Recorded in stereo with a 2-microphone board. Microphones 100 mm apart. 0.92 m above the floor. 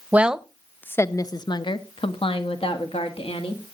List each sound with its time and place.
0.1 s a woman speaking: 15° right (ahead or behind), 0.7 m; by 3.6 s 80° left, 1.7 m